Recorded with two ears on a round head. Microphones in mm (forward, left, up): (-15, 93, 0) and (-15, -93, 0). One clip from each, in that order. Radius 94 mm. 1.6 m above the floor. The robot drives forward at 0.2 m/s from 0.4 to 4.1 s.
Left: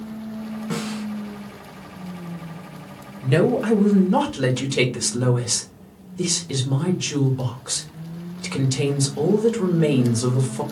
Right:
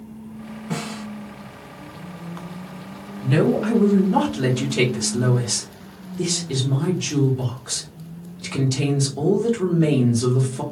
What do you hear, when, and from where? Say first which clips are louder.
0.7 s a snare drum: even; 45° left (ahead or behind), 1.6 m
3.2 s a woman speaking: left 1 dB; 20° left (ahead or behind), 0.6 m; by 10.6 s 15° left (ahead or behind), 0.8 m